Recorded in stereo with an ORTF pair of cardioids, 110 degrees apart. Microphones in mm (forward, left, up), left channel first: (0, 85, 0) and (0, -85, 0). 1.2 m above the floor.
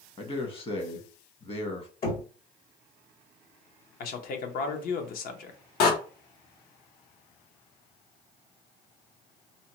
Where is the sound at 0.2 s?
35° left, 1.1 m.